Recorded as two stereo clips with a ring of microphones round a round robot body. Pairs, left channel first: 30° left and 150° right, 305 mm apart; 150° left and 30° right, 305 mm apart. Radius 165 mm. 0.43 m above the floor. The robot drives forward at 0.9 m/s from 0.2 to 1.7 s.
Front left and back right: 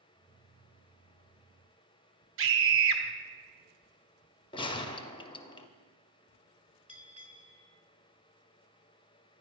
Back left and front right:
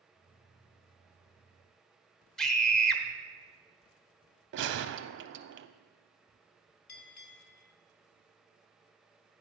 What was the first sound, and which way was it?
A scream, 125° right.